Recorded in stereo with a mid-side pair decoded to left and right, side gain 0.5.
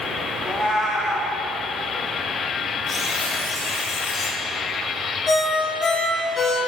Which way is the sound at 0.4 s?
20° left.